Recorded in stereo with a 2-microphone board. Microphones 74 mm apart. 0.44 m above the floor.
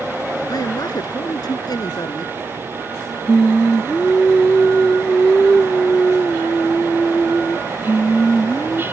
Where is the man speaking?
65° left (ahead or behind).